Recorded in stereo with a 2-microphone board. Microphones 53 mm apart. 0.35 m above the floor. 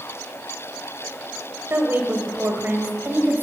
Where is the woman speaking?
45° right (ahead or behind), 1.4 m; by 3.4 s 40° right (ahead or behind), 1.7 m.